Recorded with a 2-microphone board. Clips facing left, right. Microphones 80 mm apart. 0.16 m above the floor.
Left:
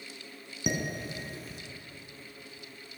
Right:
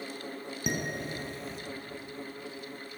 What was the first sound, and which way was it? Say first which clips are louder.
Dishes clattering: left 1 dB; 5° left (ahead or behind).